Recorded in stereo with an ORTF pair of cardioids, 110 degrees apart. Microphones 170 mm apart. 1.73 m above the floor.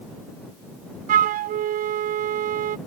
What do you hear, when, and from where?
1.1 s a flute: 55° right